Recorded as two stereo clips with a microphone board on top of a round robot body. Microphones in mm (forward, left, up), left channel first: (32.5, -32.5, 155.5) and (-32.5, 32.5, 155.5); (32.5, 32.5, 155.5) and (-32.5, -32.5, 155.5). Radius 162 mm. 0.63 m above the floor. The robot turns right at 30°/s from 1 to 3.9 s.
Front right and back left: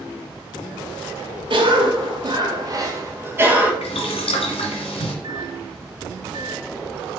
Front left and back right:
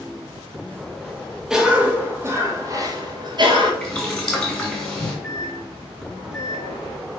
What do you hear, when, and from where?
1.5 s a cough: 140° left, 1.4 m; by 3.7 s 150° right, 1.4 m
3.8 s boiling: 45° right, 1.8 m; by 5.1 s 40° right, 1.8 m
5.2 s a microwave: 135° left, 1.3 m